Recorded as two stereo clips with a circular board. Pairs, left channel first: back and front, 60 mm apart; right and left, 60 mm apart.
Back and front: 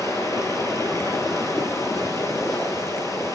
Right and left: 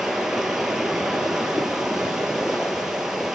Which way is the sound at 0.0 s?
170° left.